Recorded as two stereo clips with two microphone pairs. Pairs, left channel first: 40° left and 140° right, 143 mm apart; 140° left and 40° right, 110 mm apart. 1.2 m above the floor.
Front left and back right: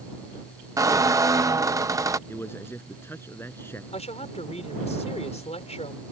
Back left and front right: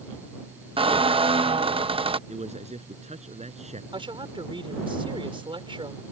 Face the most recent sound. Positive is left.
turn(degrees=0)